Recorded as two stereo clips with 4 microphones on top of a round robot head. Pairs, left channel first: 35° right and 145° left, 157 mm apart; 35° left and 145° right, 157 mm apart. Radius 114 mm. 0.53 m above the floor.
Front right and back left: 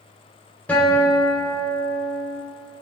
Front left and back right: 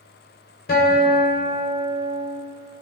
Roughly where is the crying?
No crying in this recording.